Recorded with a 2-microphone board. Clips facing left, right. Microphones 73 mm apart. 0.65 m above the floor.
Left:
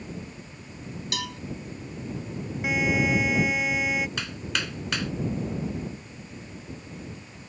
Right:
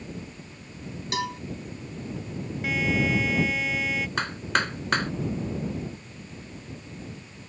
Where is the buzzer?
20° left (ahead or behind).